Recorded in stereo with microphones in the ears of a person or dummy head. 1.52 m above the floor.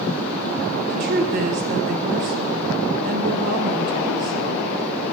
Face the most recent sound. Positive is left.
turn(degrees=-45)  # may be behind; listen again after turning